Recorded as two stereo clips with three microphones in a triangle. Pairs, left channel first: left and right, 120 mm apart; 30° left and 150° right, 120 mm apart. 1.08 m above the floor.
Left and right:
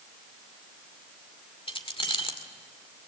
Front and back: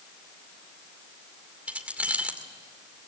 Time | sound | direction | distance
1.7 | keys jangling | 130° left | 2 m